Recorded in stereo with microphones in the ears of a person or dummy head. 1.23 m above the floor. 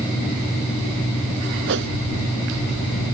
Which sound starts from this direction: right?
A whoosh, at 1.7 s.